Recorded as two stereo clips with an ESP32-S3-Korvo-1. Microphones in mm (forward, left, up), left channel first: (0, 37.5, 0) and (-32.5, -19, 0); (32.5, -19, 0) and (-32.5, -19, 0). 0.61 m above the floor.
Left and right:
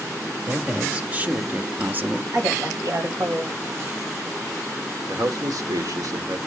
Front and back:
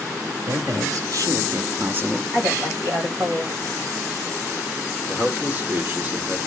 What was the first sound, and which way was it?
A man speaking, 170° left.